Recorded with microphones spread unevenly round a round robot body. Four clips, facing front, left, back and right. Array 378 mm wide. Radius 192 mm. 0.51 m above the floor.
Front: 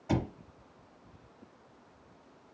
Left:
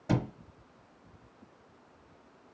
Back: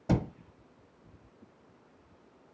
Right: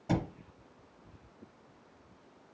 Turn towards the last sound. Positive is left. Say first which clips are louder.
# left 2 dB, back 2 dB
turn(degrees=175)